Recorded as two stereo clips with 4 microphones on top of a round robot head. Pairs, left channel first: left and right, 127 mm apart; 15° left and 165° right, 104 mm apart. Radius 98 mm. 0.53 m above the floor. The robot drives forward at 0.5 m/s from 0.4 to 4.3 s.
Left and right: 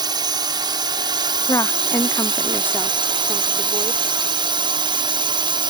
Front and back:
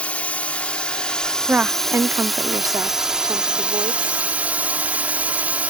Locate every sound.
0.0 s a drone: 55° right; by 5.7 s 95° right
1.5 s a woman speaking: 130° left; by 4.2 s 165° left